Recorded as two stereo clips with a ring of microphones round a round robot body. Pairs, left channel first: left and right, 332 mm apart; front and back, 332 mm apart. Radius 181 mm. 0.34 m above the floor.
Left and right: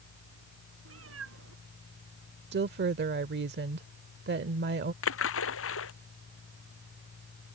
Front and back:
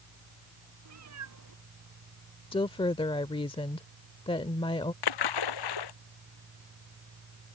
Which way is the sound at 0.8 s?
140° right.